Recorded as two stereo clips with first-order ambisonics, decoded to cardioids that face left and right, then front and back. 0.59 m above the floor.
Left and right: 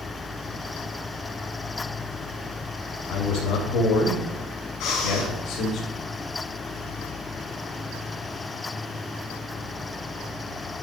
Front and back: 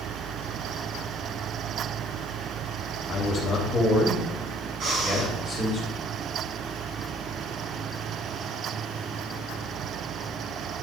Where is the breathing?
125° left, 2 m.